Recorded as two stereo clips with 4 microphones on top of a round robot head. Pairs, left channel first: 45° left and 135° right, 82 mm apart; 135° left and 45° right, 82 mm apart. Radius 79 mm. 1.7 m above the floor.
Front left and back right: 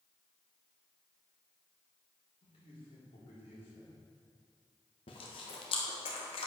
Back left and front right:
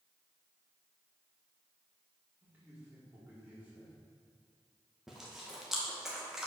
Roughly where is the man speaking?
Ahead left.